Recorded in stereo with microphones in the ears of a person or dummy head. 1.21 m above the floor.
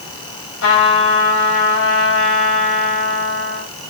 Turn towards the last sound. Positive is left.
turn(degrees=75)  # may be behind; listen again after turning